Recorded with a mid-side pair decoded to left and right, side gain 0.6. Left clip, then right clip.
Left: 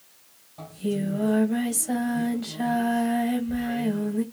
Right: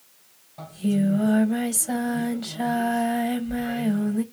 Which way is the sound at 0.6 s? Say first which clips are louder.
Right 2 dB; 25° right.